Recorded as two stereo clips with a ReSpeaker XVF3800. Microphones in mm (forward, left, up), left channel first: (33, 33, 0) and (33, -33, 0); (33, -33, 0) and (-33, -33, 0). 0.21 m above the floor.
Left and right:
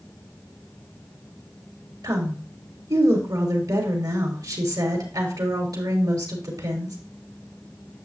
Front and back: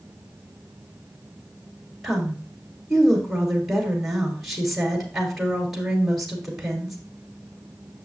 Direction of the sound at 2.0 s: 95° right.